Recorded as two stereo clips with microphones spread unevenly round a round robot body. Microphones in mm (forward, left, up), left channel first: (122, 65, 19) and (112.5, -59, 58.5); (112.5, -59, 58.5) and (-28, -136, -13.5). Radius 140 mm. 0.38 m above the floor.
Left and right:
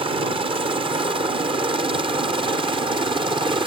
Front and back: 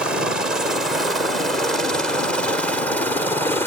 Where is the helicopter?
135° right; by 3.7 s 90° right.